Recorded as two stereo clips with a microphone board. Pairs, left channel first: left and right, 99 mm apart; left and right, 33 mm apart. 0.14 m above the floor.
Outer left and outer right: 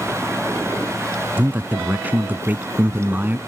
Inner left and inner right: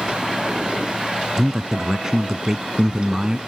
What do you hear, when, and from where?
1.4 s a man speaking: 20° right (ahead or behind)